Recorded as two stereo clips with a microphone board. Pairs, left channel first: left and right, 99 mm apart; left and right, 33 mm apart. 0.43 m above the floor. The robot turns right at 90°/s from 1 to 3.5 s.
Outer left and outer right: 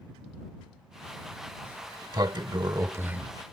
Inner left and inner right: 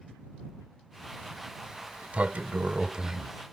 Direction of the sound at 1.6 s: 155° right.